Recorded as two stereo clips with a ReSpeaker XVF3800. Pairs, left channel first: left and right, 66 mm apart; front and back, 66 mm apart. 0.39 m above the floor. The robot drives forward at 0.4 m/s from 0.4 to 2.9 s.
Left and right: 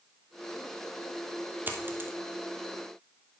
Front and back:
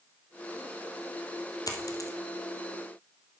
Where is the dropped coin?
30° right, 1.4 m; by 2.1 s 35° right, 1.2 m.